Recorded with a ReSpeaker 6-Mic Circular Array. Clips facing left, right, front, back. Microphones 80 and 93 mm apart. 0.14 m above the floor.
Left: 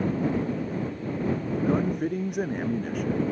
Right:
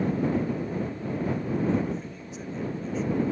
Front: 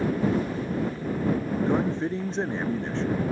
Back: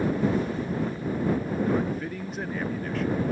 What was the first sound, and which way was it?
A man speaking, 60° left.